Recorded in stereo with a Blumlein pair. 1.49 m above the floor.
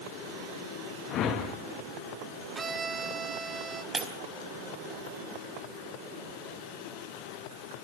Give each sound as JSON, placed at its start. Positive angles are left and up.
{"t": 1.1, "sound": "a whoosh", "azimuth_deg": 35, "distance_m": 2.5}
{"t": 2.5, "sound": "a violin", "azimuth_deg": -15, "distance_m": 1.2}
{"t": 3.9, "sound": "breaking glass", "azimuth_deg": -15, "distance_m": 4.0}